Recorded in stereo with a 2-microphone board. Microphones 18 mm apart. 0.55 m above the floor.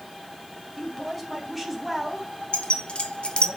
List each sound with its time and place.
0.8 s a woman speaking: centre (ahead or behind), 3 m; by 3.5 s 30° right (ahead or behind), 2.5 m
2.5 s keys jangling: 70° left (ahead or behind), 0.9 m